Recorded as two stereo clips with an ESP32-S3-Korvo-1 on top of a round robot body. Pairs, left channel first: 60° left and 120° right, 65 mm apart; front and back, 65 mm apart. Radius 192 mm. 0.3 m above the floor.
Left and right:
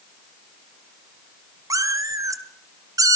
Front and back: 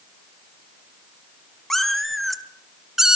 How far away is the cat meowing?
About 1.9 m.